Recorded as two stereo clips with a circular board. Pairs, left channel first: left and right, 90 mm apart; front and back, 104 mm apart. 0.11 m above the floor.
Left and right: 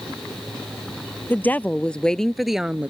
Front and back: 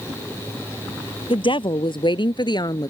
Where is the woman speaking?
20° left; by 2.9 s 20° right.